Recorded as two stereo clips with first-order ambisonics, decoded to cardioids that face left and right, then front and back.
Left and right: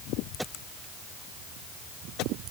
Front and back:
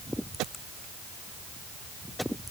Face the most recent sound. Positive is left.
No sound to turn to.